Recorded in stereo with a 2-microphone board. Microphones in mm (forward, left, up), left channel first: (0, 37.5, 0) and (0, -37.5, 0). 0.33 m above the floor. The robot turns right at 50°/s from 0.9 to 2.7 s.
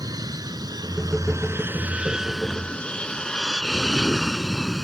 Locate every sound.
0.0 s an aircraft: 55° right (ahead or behind); by 4.8 s centre (ahead or behind)